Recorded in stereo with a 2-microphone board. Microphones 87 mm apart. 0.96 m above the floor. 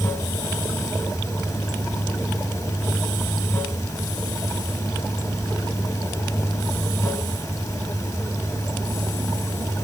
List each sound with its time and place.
0.0 s running water: 35° left (ahead or behind), 1.8 m